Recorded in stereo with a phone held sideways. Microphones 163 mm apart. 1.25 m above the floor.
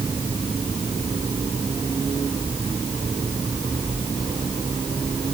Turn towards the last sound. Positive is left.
No sound to turn to.